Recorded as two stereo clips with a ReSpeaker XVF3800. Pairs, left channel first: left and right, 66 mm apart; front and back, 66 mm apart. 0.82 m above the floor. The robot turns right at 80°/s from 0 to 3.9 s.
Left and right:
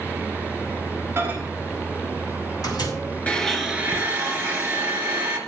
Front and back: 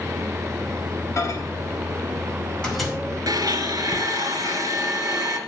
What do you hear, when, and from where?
1.2 s a microwave: 40° right, 4.5 m; by 2.9 s 100° left, 4.5 m
3.3 s a blender: 155° left, 3 m; by 5.4 s 155° right, 3 m